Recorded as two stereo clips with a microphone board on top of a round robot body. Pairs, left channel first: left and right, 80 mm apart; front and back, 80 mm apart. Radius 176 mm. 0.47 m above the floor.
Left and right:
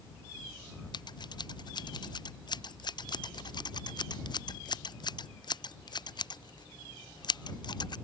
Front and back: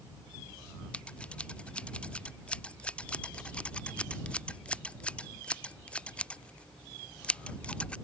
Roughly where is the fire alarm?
I don't hear a fire alarm.